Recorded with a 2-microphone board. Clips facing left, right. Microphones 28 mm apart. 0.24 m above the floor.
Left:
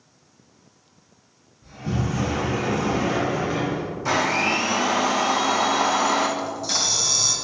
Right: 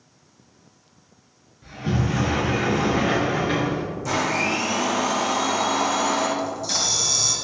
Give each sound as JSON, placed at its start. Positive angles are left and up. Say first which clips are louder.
{"t": 1.6, "sound": "a sliding door", "louder": "right 2 dB", "side_deg": -65, "distance_m": 4.0}
{"t": 4.0, "sound": "a blender", "louder": "left 2 dB", "side_deg": 45, "distance_m": 2.5}
{"t": 6.4, "sound": "a camera shutter", "louder": "even", "side_deg": 10, "distance_m": 2.5}